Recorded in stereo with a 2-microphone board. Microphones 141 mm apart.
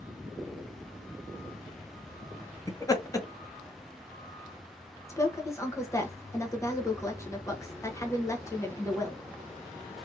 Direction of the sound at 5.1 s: 20° left (ahead or behind).